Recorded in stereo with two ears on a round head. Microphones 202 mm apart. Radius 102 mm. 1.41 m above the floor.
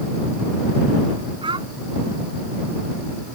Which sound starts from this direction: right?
A child speaking, at 1.4 s.